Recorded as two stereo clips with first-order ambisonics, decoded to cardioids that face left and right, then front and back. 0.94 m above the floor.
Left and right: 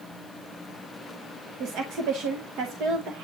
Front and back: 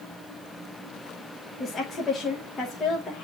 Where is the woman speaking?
65° right, 1.0 m.